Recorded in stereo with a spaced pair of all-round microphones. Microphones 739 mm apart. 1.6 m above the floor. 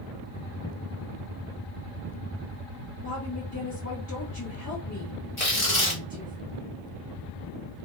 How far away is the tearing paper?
About 1.5 m.